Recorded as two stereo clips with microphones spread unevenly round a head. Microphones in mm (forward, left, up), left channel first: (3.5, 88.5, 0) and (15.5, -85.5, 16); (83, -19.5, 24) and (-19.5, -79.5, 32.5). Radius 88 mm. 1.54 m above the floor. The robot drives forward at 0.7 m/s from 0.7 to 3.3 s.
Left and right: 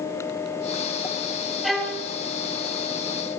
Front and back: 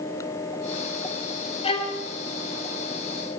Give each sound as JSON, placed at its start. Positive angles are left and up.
{"t": 1.6, "sound": "a violin", "azimuth_deg": 0, "distance_m": 1.7}